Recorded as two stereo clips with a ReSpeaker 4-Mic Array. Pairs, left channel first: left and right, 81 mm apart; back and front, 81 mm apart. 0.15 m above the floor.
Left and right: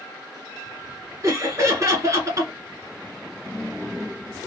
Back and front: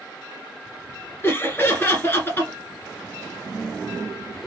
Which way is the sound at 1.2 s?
125° right.